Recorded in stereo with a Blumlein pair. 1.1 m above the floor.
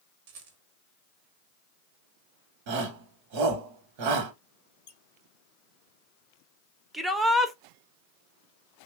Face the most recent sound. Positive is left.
turn(degrees=-5)